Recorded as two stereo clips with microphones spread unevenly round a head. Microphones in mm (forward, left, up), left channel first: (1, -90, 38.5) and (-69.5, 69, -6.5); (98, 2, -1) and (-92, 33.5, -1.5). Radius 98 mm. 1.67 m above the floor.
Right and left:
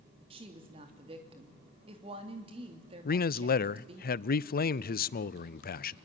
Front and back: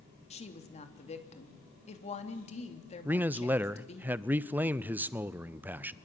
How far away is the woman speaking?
About 3 m.